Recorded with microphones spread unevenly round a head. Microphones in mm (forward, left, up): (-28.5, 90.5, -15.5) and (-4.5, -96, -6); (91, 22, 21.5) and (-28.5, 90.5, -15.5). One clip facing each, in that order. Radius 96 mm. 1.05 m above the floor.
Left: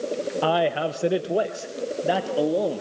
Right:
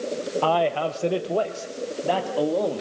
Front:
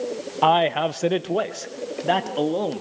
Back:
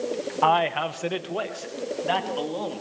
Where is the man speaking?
35° left, 0.5 m; by 2.8 s 15° left, 2 m.